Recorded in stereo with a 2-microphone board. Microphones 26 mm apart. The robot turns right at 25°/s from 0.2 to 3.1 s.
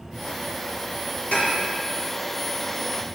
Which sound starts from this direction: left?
Dishes clattering, at 1.3 s.